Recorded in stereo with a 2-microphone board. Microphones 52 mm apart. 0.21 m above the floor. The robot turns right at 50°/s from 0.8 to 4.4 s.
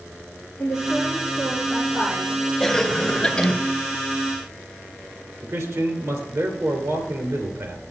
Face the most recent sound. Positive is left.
turn(degrees=-65)  # may be behind; listen again after turning